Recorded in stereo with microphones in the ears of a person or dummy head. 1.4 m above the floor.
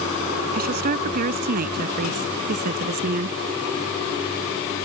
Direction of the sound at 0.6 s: 45° right (ahead or behind).